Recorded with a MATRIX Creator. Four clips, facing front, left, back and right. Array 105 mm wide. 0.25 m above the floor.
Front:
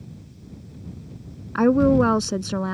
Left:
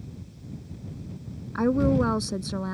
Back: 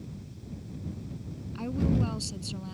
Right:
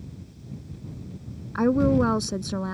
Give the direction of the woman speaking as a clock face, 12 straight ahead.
12 o'clock.